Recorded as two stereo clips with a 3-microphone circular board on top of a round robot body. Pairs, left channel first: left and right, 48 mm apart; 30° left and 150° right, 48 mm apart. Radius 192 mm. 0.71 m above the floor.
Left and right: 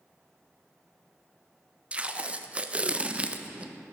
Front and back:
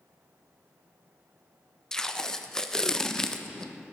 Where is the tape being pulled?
40° right, 0.8 m.